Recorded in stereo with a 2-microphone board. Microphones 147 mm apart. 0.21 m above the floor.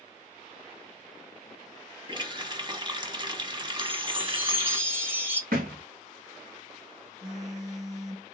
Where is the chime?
15° right (ahead or behind), 0.9 m.